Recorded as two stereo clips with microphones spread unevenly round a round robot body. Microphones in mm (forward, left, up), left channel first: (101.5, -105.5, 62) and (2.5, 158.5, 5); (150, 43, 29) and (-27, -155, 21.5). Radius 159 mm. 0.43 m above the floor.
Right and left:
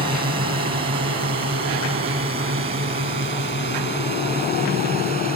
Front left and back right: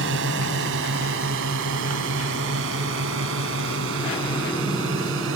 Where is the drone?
Straight behind; by 5.4 s 175° left.